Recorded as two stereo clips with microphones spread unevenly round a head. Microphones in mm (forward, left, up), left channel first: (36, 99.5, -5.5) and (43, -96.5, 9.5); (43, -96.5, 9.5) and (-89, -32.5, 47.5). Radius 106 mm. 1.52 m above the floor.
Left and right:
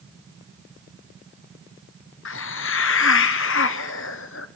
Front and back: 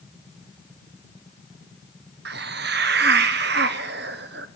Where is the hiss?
120° left, 0.9 m.